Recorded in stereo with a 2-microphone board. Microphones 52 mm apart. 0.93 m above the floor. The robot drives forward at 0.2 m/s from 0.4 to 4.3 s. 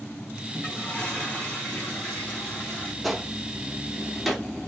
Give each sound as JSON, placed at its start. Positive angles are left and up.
{"t": 0.5, "sound": "a toilet flushing", "side_deg": 25, "distance_m": 1.8}
{"t": 3.0, "sound": "a gunshot", "side_deg": 0, "distance_m": 0.7}